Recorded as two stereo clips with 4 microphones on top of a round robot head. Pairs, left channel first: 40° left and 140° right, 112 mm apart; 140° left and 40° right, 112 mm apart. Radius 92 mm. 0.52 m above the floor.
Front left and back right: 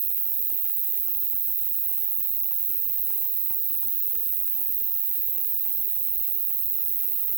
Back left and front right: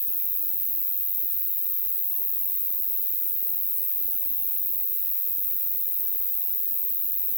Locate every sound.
0.0 s an insect: 145° right, 0.9 m